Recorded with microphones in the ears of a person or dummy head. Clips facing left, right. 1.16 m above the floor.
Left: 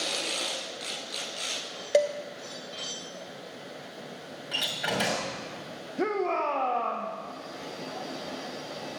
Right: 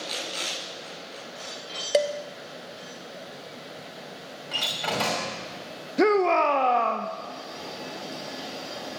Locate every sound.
1.9 s dishes clattering: 5° right (ahead or behind), 0.7 m
4.5 s a door slam: 15° left (ahead or behind), 2.5 m
6.0 s a shout: 65° right (ahead or behind), 0.7 m